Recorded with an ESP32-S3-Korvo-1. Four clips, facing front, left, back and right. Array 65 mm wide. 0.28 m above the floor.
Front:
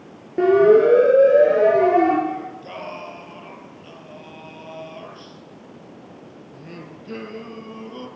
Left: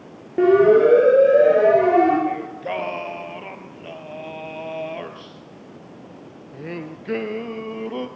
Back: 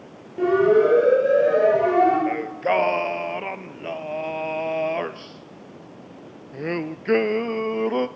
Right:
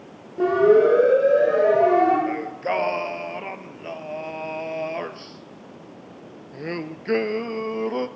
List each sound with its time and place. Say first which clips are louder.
0.4 s a siren: left 3 dB, front 4 dB; 45° left, 8.5 m; by 2.2 s 50° left, 9.5 m
2.3 s singing: right 1 dB, back 7 dB; 165° right, 0.9 m